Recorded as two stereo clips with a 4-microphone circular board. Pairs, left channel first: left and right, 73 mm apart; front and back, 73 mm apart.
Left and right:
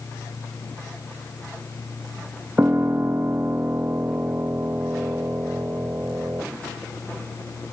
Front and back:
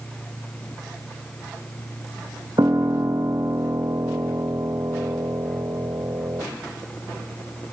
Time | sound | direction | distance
2.6 | a piano | 150° right | 0.8 m